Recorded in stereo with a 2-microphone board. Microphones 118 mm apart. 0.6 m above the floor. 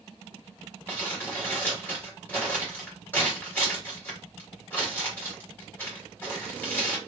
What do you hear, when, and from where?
0.9 s crumpling: 15° left (ahead or behind), 2.0 m